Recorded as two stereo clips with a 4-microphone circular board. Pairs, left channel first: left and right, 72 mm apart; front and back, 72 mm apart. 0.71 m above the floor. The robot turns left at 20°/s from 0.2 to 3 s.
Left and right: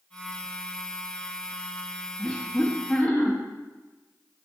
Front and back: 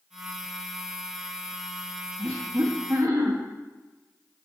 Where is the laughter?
175° left, 0.7 m; by 3.4 s 160° left, 0.7 m.